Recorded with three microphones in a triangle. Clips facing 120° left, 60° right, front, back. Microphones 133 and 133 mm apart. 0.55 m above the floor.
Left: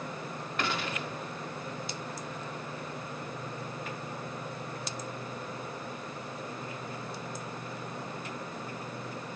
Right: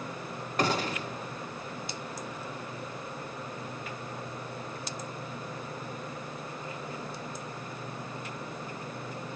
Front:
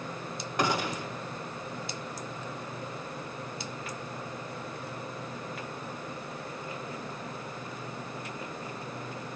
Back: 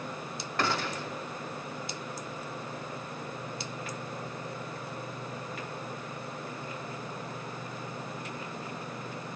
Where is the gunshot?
65° right, 1.0 m.